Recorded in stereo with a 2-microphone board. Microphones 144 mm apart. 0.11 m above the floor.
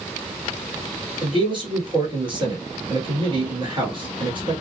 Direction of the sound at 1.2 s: 35° right (ahead or behind).